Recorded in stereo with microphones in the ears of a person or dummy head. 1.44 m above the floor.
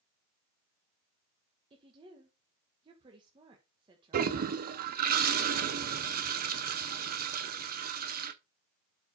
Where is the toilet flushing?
50° right (ahead or behind), 0.7 m.